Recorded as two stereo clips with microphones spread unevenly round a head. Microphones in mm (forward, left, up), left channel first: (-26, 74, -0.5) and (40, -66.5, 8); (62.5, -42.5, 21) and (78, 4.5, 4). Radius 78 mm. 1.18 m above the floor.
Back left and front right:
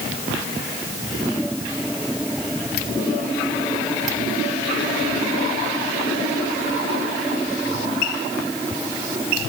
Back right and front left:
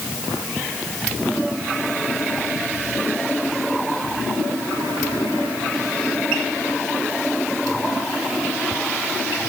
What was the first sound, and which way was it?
Only background noise.